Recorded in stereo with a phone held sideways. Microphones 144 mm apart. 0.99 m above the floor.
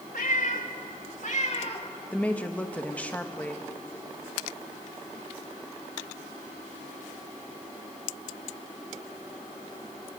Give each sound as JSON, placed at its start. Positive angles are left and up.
{"t": 0.1, "sound": "a cat meowing", "side_deg": 80, "distance_m": 2.0}
{"t": 2.1, "sound": "a woman speaking", "side_deg": 10, "distance_m": 1.4}